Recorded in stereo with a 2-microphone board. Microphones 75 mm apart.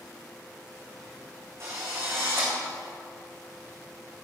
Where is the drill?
40° right (ahead or behind), 5 m.